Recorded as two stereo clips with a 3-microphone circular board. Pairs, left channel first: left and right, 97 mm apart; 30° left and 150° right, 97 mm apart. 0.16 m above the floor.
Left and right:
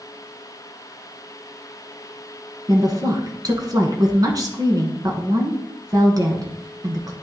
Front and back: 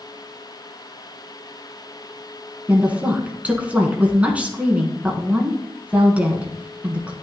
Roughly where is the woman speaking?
Right.